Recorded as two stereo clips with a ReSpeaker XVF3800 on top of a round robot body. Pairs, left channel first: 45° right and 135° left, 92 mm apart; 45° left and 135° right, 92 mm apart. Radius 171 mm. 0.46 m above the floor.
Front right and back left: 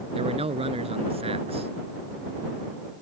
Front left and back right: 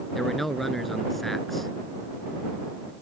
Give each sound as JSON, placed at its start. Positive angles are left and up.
{"t": 0.1, "sound": "a man speaking", "azimuth_deg": 135}